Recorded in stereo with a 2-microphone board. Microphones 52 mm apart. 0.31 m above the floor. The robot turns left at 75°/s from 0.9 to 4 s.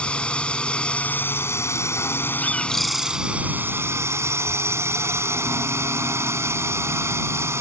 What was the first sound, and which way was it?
A drone, 155° left.